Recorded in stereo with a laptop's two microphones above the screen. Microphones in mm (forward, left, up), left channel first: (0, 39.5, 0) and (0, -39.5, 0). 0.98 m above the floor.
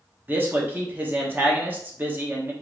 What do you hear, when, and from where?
0.3 s a man speaking: 25° right (ahead or behind), 0.7 m